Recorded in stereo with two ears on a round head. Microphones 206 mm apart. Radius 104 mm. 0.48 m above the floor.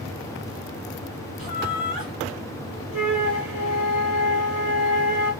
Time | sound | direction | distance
1.4 | laughter | 20° right (ahead or behind) | 2 m
2.9 | a flute | 30° right (ahead or behind) | 1.7 m